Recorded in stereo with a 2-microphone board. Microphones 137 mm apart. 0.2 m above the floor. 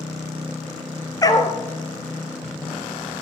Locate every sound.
1.2 s a dog barking: 25° left (ahead or behind), 1.1 m